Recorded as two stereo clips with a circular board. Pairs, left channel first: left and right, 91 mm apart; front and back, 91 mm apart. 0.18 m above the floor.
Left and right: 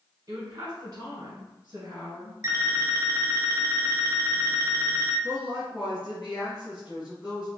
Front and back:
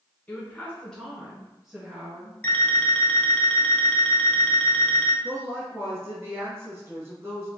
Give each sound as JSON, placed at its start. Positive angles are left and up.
{"t": 0.3, "sound": "a woman speaking", "azimuth_deg": -65, "distance_m": 1.3}
{"t": 2.4, "sound": "an alarm clock", "azimuth_deg": -65, "distance_m": 0.7}
{"t": 5.2, "sound": "a woman speaking", "azimuth_deg": -155, "distance_m": 1.3}